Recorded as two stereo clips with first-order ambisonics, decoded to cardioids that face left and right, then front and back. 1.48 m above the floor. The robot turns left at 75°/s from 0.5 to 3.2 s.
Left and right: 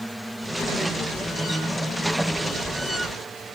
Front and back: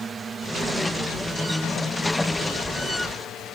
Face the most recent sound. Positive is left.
turn(degrees=-30)